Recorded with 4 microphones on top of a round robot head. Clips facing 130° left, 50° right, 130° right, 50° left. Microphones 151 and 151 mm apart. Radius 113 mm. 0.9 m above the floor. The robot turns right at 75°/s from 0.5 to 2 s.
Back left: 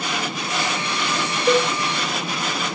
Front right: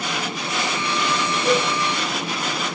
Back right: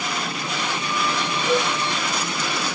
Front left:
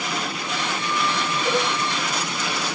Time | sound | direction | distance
1.4 | a cowbell | 5° right | 5 m